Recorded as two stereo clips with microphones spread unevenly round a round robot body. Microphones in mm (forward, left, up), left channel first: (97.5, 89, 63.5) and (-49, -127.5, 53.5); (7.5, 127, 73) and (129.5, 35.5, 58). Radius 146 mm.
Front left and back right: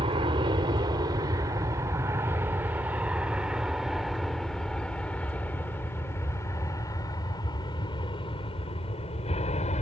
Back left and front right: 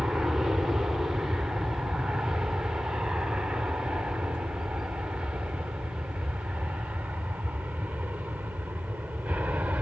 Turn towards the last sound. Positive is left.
turn(degrees=25)